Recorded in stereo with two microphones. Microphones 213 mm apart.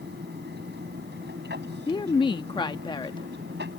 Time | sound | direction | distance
0.0 | an aircraft | 50° right (ahead or behind) | ?
1.9 | a woman speaking | 20° left (ahead or behind) | ?